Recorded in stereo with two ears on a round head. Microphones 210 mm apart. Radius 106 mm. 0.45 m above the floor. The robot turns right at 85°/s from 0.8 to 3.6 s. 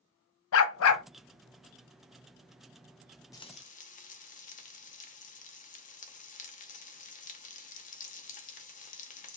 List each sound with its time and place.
0.5 s a dog barking: 60° left (ahead or behind), 0.6 m; by 1.0 s 75° left (ahead or behind), 0.6 m
3.3 s frying: 15° left (ahead or behind), 0.7 m; by 9.4 s 30° left (ahead or behind), 0.7 m